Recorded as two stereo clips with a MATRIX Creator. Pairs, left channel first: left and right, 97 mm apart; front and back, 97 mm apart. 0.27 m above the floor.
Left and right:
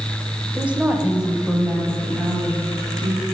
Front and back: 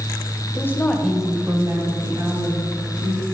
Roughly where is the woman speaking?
Ahead right.